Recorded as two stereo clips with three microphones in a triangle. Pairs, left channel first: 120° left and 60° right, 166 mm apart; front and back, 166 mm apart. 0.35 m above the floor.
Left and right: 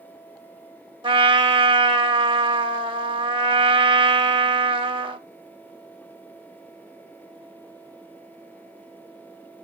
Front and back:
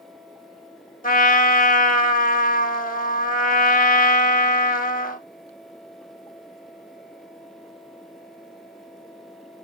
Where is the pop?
No pop in this recording.